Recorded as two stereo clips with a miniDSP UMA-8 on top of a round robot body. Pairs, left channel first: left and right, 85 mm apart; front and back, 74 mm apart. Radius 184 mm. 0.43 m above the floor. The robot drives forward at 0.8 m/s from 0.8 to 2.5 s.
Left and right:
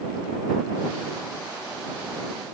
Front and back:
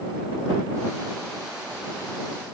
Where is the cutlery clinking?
No cutlery clinking in this recording.